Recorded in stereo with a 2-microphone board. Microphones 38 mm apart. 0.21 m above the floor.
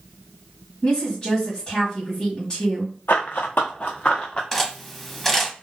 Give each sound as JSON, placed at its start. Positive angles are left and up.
{"t": 0.8, "sound": "a woman speaking", "side_deg": 25, "distance_m": 1.4}
{"t": 3.1, "sound": "running footsteps", "side_deg": 75, "distance_m": 0.7}
{"t": 4.5, "sound": "cutlery clinking", "side_deg": 5, "distance_m": 0.6}